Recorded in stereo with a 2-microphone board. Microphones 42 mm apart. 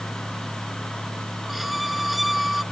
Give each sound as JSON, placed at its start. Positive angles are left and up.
{"t": 1.5, "sound": "a violin", "side_deg": -5}